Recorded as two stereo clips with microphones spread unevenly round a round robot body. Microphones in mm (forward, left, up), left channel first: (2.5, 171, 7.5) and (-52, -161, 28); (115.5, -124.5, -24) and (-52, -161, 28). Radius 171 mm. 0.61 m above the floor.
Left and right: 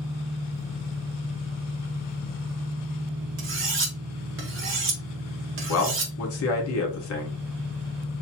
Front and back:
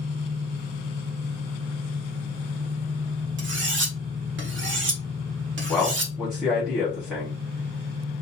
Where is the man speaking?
85° left, 1.2 m.